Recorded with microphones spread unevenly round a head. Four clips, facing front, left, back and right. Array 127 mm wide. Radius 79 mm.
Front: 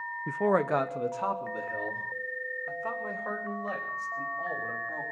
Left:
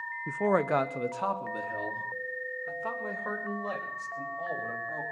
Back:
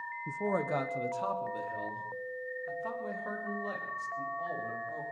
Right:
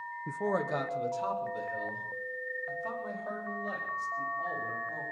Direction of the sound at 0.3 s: 15° left.